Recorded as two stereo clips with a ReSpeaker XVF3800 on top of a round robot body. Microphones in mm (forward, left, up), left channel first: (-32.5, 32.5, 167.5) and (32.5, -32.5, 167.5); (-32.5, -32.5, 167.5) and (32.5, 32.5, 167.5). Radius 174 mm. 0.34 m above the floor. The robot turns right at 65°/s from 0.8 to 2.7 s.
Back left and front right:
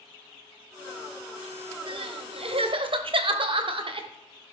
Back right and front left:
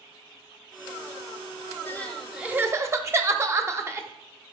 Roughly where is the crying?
Right.